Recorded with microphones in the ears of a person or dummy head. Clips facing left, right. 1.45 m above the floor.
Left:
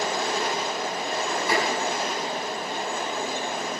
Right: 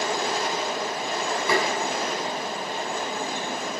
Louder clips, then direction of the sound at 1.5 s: Right 2 dB; 80° right.